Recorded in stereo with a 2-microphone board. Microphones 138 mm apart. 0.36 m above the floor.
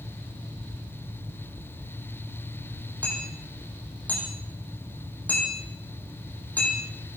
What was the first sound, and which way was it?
Hammering, 10° left (ahead or behind).